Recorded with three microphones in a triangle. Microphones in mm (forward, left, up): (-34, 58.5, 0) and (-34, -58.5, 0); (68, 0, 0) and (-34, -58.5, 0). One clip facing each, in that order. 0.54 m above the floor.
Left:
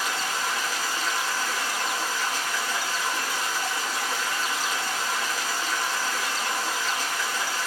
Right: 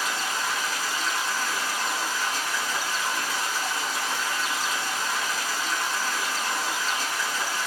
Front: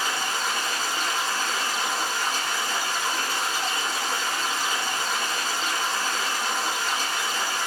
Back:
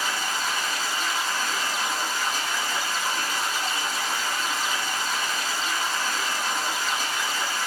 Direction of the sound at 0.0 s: 25° left.